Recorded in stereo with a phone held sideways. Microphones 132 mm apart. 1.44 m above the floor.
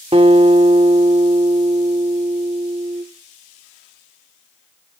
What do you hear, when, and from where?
0.1 s a guitar: 45° right (ahead or behind), 1.6 m